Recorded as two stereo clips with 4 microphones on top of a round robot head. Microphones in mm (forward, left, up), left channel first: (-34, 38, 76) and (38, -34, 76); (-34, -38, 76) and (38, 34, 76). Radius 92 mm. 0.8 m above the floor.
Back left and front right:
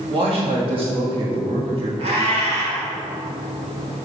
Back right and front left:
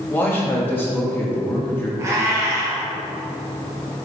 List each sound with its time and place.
0.1 s a man speaking: 65° right, 2 m
2.0 s a cat meowing: 20° right, 1.6 m